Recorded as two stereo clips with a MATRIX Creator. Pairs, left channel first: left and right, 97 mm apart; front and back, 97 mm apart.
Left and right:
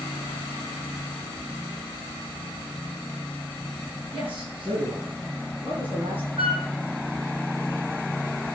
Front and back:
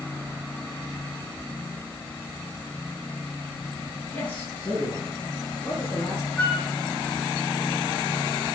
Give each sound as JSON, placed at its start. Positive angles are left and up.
{"t": 4.1, "sound": "a man speaking", "azimuth_deg": -75, "distance_m": 3.0}
{"t": 6.4, "sound": "a flute", "azimuth_deg": -80, "distance_m": 2.5}